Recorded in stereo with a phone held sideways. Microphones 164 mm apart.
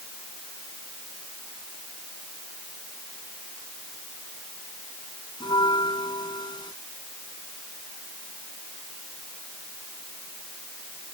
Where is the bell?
25° left (ahead or behind).